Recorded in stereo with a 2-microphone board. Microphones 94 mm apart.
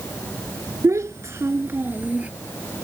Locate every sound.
0.8 s a child speaking: 30° right (ahead or behind); by 2.3 s 15° right (ahead or behind)